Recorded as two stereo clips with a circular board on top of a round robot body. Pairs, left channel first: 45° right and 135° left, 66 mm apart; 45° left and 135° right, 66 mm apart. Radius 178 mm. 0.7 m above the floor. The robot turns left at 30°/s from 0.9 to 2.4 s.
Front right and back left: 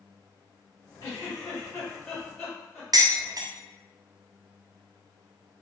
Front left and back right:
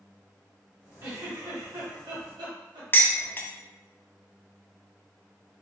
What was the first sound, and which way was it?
A giggle, 85° right.